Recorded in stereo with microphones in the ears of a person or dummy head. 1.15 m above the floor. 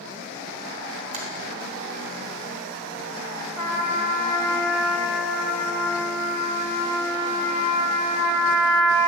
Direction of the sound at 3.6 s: 10° left (ahead or behind).